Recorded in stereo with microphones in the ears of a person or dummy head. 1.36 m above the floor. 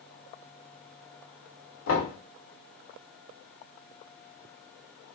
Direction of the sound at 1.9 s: 85° left.